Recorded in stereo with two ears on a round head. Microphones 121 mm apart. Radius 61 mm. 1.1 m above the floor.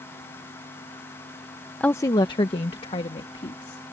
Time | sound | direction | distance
1.8 | a woman speaking | 5° left (ahead or behind) | ?